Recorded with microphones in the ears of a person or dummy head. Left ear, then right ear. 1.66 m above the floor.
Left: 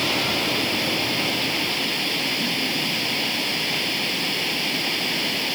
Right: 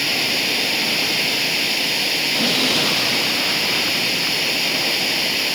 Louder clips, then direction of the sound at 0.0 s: Right 3 dB; 15° right (ahead or behind).